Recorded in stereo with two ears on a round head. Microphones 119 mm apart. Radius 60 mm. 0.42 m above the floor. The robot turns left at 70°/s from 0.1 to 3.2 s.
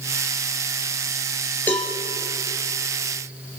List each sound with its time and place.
1.7 s a cowbell: 15° left (ahead or behind), 3 m; by 1.9 s 5° right (ahead or behind), 3 m